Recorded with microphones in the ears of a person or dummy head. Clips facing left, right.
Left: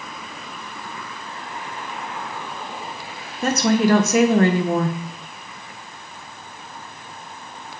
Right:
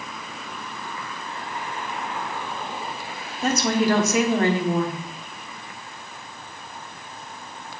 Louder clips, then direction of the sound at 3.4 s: Left 3 dB; 45° left (ahead or behind).